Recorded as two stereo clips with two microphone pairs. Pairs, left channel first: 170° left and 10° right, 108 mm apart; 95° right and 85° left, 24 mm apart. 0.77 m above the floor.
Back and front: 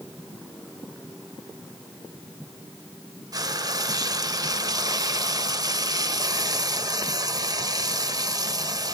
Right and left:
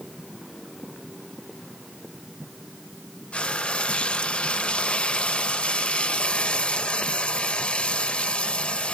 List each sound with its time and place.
3.3 s frying: 60° right, 1.0 m